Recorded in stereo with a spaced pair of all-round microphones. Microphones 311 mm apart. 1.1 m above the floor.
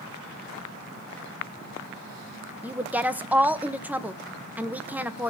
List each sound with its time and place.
2.6 s a woman speaking: 5° right (ahead or behind), 1.0 m